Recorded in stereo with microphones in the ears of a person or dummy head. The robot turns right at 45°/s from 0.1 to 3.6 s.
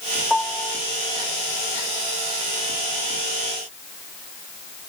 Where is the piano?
5° left (ahead or behind); by 0.8 s 20° left (ahead or behind).